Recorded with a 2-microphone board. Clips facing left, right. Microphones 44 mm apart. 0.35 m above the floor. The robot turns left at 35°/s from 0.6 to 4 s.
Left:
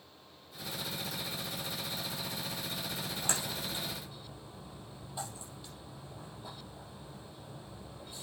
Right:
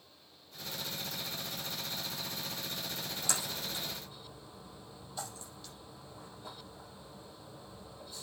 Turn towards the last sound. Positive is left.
turn(degrees=20)  # may be behind; listen again after turning